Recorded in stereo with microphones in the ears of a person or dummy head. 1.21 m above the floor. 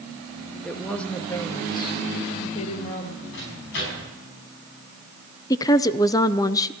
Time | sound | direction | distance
0.6 | a woman speaking | centre (ahead or behind) | 1.6 m
3.3 | a microwave | 70° left (ahead or behind) | 7.5 m
5.5 | a woman speaking | 20° left (ahead or behind) | 0.5 m